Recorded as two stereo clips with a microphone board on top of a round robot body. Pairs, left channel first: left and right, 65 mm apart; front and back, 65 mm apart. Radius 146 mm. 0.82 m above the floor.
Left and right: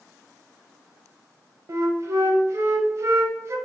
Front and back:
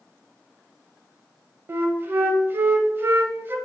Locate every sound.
1.7 s a flute: 130° right, 0.6 m